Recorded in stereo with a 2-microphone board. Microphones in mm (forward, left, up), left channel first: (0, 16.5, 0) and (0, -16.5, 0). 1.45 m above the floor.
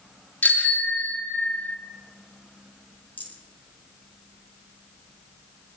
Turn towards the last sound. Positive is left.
turn(degrees=65)  # may be behind; listen again after turning